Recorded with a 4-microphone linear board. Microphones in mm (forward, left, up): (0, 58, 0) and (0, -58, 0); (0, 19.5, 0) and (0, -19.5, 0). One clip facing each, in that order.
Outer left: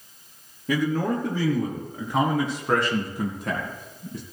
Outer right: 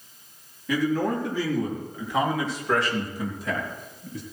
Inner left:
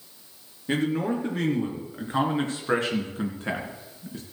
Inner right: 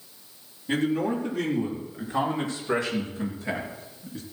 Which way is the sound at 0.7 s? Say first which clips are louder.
Even, even; 45° left (ahead or behind).